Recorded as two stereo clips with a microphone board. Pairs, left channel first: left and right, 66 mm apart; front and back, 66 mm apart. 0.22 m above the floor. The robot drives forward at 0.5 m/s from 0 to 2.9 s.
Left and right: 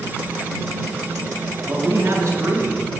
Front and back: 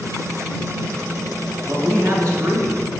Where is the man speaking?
135° right, 3 m; by 2.8 s 140° right, 3.5 m.